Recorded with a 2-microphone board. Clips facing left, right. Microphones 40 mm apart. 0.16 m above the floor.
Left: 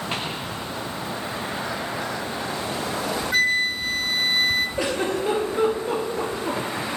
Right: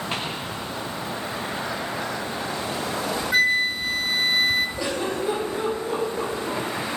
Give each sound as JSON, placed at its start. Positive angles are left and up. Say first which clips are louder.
{"t": 3.3, "sound": "a flute", "louder": "right 1 dB", "side_deg": -5, "distance_m": 0.5}
{"t": 4.8, "sound": "a giggle", "louder": "left 2 dB", "side_deg": 70, "distance_m": 1.7}